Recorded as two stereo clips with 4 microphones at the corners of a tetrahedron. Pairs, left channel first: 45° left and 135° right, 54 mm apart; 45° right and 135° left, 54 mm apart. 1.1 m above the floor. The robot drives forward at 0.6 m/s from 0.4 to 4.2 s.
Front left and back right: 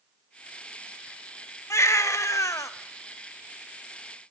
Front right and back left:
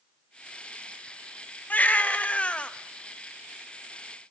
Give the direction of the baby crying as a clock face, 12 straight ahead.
12 o'clock.